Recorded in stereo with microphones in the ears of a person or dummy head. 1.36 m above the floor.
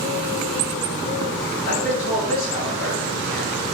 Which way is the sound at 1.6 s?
80° left.